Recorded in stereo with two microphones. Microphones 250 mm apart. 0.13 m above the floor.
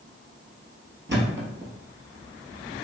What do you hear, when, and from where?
1.1 s a thud: 50° right (ahead or behind), 1.4 m